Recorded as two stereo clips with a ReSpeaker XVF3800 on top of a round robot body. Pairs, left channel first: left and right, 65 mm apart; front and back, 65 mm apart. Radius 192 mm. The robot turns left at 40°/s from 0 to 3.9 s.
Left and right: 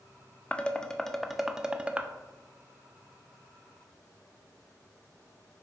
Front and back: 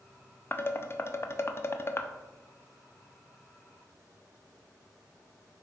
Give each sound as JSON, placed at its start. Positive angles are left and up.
{"t": 0.5, "sound": "dishes clattering", "azimuth_deg": 30, "distance_m": 0.5}